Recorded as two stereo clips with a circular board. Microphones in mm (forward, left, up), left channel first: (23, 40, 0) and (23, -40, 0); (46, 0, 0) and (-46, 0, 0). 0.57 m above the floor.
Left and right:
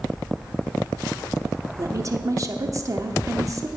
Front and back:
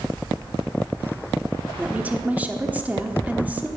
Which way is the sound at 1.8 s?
110° right.